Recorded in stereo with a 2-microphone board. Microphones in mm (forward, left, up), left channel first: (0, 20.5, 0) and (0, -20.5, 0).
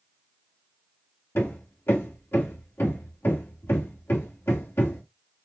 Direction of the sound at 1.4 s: 65° left (ahead or behind).